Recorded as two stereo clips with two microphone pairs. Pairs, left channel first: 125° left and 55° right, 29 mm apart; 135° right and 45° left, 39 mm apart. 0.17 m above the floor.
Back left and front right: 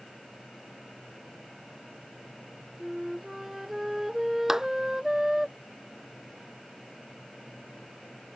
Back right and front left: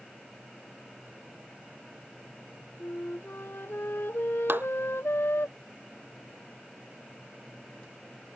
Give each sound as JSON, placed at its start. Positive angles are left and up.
{"t": 2.8, "sound": "a flute", "azimuth_deg": -135}
{"t": 4.5, "sound": "a clap", "azimuth_deg": 20}